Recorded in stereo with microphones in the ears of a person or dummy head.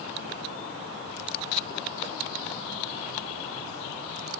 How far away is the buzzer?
No buzzer in this recording.